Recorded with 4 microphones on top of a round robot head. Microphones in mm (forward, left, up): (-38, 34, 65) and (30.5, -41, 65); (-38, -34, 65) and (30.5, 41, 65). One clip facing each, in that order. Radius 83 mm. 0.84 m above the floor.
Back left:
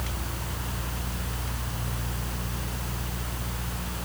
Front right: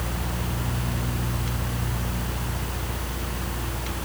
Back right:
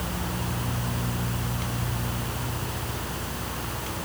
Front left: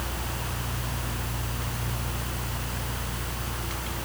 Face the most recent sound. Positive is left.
No sound to turn to.